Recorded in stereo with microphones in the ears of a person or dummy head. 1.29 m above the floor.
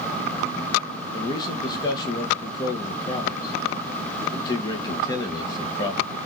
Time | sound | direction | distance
1.1 | a man speaking | 20° left (ahead or behind) | 1.0 m